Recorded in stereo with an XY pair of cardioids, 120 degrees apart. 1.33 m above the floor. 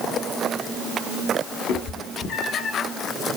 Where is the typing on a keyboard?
I don't hear typing on a keyboard.